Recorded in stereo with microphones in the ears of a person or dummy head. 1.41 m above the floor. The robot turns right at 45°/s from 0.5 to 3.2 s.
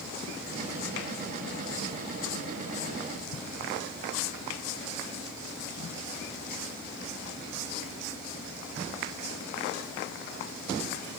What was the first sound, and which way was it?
Only background noise.